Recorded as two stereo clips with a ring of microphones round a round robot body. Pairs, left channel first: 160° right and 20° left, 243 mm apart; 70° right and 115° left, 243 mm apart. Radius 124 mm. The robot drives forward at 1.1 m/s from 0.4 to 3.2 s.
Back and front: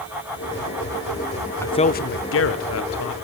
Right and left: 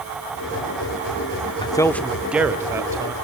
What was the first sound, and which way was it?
A man speaking, 95° right.